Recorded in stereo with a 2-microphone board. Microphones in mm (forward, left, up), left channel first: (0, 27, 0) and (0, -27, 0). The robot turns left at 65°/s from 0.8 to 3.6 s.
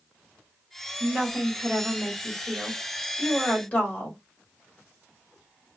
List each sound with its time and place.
1.0 s a woman speaking: 20° right (ahead or behind), 1.5 m; by 4.2 s 20° left (ahead or behind), 1.5 m